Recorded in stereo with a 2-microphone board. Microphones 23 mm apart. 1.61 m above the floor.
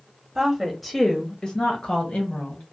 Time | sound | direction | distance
0.3 | a woman speaking | 20° right (ahead or behind) | 0.8 m